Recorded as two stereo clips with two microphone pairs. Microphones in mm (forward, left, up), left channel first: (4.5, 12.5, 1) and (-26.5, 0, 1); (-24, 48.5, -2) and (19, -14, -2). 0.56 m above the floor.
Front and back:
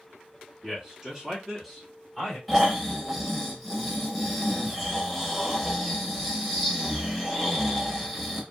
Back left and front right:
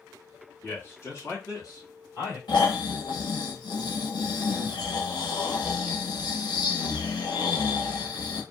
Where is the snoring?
110° left, 0.9 m.